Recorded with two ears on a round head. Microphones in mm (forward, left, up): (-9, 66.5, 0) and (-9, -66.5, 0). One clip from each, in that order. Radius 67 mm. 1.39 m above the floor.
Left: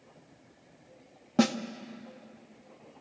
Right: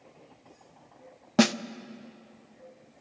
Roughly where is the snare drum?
Right.